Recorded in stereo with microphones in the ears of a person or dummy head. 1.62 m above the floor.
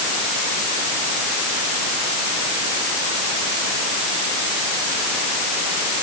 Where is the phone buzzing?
I don't hear a phone buzzing.